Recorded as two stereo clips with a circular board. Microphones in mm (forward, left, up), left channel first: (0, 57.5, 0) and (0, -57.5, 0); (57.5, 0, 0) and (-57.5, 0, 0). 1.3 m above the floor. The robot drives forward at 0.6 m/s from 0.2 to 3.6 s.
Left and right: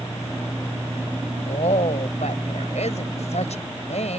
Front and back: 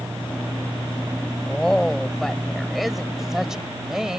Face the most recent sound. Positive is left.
turn(degrees=95)